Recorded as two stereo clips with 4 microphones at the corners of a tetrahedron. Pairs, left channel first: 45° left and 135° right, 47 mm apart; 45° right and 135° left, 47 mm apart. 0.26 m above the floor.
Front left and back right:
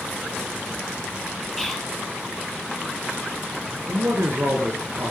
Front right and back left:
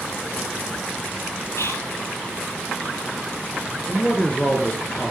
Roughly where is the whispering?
Ahead right.